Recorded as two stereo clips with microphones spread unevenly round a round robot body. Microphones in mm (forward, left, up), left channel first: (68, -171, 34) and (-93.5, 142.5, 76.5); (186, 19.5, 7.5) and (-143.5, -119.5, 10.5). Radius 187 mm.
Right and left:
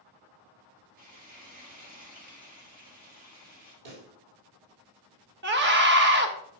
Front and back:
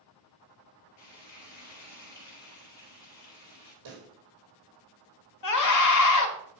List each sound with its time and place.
1.0 s frying: 50° left, 3.5 m
3.9 s a pop: 150° left, 3.5 m
5.4 s a scream: 55° left, 1.4 m